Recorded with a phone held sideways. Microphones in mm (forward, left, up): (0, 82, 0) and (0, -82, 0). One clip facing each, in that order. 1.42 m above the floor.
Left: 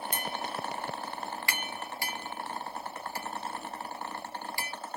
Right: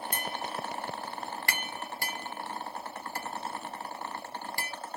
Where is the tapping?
45° right (ahead or behind), 0.5 m.